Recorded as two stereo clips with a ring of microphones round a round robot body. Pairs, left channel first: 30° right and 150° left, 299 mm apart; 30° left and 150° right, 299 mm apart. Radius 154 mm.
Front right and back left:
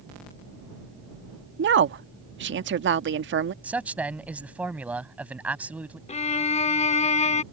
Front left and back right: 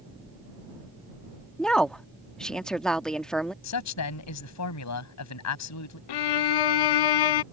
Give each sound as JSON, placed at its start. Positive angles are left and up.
{"t": 1.6, "sound": "a woman speaking", "azimuth_deg": 115}
{"t": 3.6, "sound": "a man speaking", "azimuth_deg": 65}
{"t": 6.1, "sound": "a violin", "azimuth_deg": 40}